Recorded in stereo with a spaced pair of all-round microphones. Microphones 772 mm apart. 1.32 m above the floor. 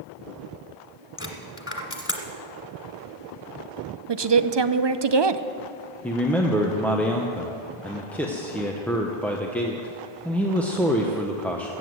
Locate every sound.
1.2 s a dropped coin: 15° left (ahead or behind), 1.7 m
4.1 s a woman speaking: 40° right (ahead or behind), 0.6 m
6.0 s a man speaking: centre (ahead or behind), 0.9 m